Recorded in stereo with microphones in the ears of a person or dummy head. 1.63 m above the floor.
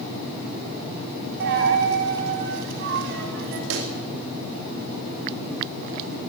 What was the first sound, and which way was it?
A dropped coin, 50° right (ahead or behind).